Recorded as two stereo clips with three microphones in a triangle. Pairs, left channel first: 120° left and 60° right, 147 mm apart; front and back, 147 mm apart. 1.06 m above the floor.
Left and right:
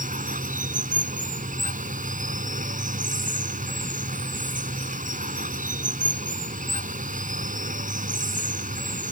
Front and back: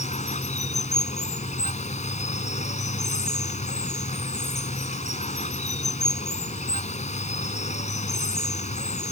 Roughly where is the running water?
Ahead right.